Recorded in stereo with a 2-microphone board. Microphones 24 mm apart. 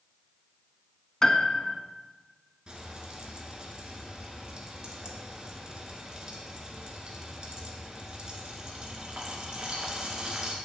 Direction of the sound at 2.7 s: 35° right (ahead or behind).